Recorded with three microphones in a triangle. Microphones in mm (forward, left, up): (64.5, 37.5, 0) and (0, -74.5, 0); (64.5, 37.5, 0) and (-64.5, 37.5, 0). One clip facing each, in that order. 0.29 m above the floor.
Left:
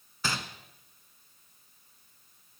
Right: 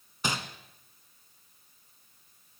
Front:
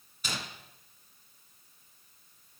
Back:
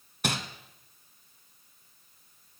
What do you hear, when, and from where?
0.2 s crumpling: 170° left, 1.7 m